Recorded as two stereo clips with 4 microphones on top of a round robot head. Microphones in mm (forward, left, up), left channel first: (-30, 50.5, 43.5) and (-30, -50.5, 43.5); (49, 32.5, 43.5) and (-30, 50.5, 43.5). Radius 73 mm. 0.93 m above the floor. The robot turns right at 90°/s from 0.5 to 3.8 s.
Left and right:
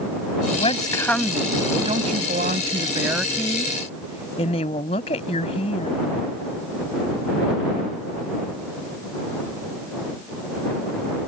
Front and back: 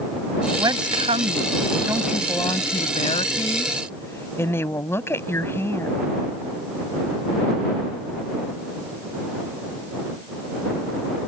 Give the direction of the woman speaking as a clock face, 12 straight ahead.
8 o'clock.